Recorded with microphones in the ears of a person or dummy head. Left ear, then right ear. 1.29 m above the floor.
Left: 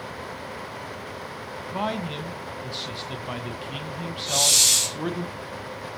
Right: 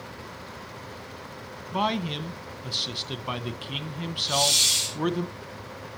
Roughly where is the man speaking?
Centre.